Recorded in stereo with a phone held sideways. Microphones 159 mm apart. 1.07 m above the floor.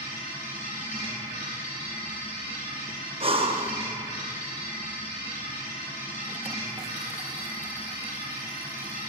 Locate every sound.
0.0 s a machine running: 55° left (ahead or behind), 3 m
3.2 s breathing: 35° right (ahead or behind), 0.6 m